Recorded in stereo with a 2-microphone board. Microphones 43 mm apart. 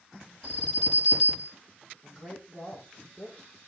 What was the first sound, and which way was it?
An alarm, 15° left (ahead or behind).